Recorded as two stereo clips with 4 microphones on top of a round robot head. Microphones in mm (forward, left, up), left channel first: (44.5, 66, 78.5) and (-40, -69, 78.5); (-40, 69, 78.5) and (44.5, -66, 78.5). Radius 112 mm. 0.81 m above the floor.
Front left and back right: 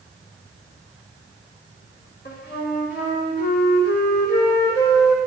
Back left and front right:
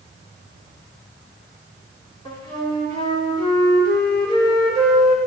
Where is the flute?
65° left, 3 m.